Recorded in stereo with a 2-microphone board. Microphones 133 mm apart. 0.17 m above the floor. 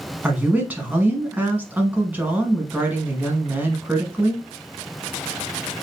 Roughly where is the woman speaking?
Centre.